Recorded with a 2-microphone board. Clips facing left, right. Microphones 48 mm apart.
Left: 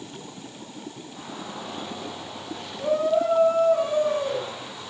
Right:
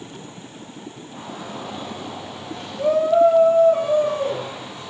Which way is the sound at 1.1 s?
55° right (ahead or behind).